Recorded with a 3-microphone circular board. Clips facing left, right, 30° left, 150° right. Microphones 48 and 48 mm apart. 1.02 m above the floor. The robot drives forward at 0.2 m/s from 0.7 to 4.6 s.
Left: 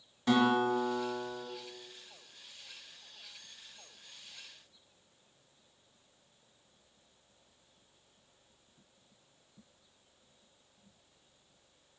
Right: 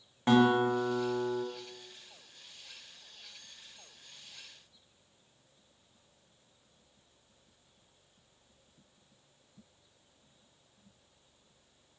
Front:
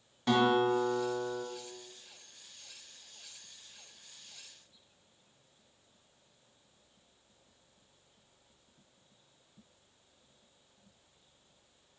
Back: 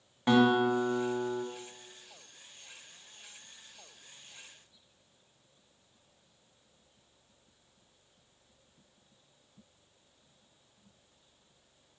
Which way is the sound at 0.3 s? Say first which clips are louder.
Right 3 dB, back 2 dB; 100° right.